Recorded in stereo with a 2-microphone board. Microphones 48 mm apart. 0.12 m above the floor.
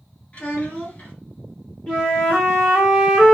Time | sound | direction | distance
0.3 | a child speaking | 30° left (ahead or behind) | 1.4 m
1.9 | a flute | 25° left (ahead or behind) | 1.5 m